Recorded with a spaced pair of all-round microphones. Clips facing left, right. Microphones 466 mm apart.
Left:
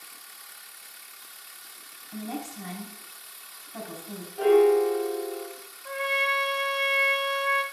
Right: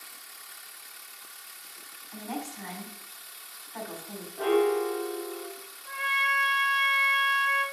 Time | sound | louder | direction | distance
2.1 | a woman speaking | left 2 dB | 55° left (ahead or behind) | 3 m
4.4 | a piano | left 6 dB | 65° right (ahead or behind) | 2 m
5.8 | a trumpet | left 12 dB | 80° left | 0.9 m